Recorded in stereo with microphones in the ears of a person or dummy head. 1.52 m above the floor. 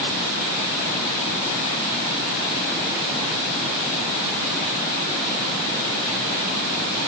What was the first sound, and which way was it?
Only background noise.